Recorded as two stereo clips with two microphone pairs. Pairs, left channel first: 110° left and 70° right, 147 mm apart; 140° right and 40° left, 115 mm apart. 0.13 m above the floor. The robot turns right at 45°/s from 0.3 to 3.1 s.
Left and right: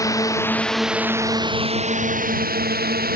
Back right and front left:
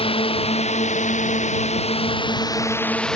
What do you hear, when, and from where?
0.0 s a drone: straight behind; by 3.2 s 55° right